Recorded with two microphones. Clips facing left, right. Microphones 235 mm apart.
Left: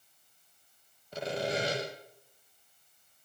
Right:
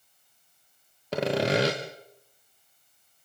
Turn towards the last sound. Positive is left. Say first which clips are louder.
# right 8 dB
turn(degrees=-85)